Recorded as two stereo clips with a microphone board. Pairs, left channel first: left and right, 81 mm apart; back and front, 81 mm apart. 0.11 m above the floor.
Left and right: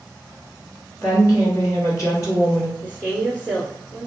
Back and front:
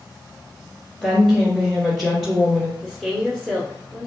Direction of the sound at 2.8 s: 105° left.